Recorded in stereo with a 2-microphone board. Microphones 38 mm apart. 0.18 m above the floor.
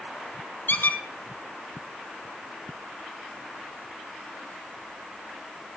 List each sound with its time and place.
0.7 s a squeak: 65° left (ahead or behind), 1.3 m